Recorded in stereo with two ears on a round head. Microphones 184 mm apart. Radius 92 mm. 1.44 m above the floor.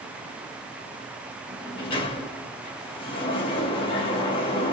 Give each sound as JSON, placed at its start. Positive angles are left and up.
{"t": 1.5, "sound": "a sliding door", "side_deg": 25, "distance_m": 0.8}